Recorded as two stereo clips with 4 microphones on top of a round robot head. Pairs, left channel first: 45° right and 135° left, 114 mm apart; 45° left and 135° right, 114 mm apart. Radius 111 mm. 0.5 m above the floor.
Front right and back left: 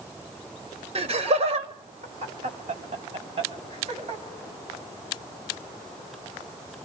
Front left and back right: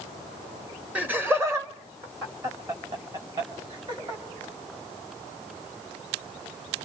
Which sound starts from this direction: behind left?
Laughter, at 0.9 s.